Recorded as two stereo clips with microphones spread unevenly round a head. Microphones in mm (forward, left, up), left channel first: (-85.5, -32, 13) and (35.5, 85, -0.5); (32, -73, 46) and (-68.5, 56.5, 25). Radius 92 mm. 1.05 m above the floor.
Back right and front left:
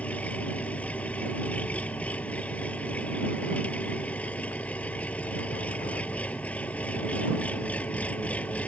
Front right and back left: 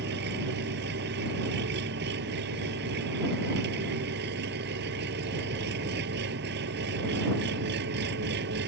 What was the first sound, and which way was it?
An engine running, 145° left.